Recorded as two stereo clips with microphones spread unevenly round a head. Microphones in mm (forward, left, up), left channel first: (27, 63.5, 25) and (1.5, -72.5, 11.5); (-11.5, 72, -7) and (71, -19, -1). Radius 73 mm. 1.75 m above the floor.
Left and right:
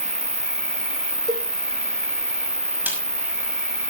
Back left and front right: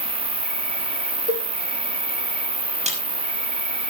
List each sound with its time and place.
0.0 s an insect: 25° right, 2.5 m
1.3 s a cowbell: 35° right, 8 m
2.9 s a snare drum: 20° right, 6 m